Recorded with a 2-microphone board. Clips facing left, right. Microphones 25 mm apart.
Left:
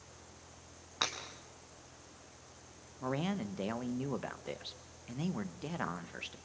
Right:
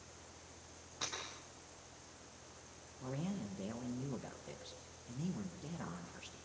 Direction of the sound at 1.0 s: 55° left (ahead or behind).